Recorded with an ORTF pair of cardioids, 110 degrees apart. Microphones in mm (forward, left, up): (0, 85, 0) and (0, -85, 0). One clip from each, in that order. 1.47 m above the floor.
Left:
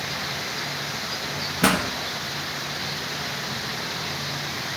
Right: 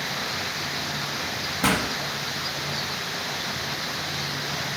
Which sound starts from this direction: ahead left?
A pop, at 1.6 s.